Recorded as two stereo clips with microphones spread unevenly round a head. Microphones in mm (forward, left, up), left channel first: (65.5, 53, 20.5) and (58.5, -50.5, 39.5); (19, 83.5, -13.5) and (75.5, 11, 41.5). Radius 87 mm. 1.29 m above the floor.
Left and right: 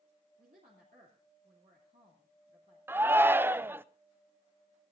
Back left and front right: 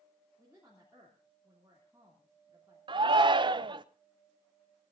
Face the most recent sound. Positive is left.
turn(degrees=-25)